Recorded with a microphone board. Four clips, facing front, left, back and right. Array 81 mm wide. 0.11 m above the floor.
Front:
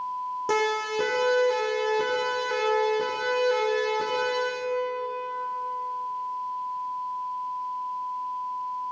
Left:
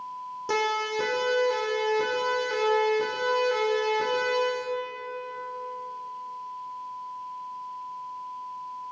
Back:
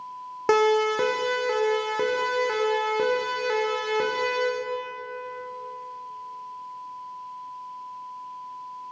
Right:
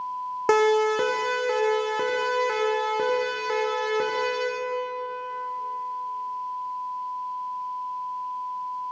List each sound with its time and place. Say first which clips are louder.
0.5 s a siren: right 8 dB, back 7 dB; 125° right, 5.5 m; by 4.5 s 135° right, 9 m